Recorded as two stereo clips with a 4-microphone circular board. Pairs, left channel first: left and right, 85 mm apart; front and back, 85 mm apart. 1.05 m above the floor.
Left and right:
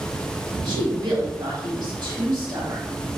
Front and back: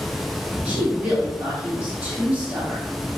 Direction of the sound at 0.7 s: 110° right.